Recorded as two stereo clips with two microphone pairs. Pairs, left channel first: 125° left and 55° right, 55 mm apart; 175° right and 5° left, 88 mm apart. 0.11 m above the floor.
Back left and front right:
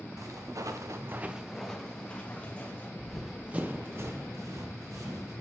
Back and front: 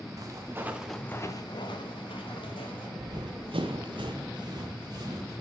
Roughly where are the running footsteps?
Ahead left.